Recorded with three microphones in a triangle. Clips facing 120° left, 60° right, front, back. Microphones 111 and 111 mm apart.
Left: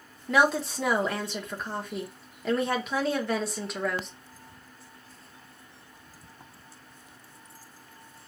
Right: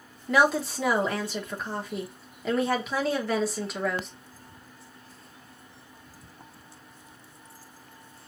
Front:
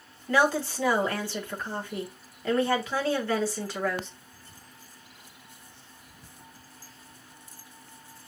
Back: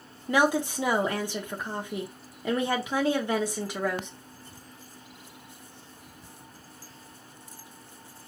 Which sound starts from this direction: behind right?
A woman speaking, at 0.3 s.